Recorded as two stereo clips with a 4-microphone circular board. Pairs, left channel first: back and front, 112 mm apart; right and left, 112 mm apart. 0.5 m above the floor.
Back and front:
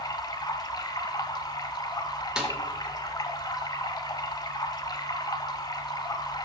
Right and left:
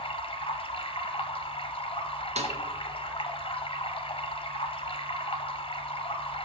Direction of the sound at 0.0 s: 130° right.